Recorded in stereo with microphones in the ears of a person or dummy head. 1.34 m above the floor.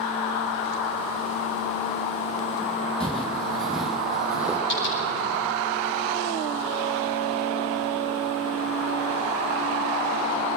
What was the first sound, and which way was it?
Footsteps, centre (ahead or behind).